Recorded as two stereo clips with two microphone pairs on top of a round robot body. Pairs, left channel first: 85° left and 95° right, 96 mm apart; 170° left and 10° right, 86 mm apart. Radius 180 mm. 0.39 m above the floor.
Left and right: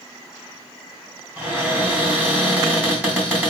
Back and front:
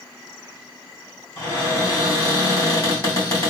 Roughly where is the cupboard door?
Behind.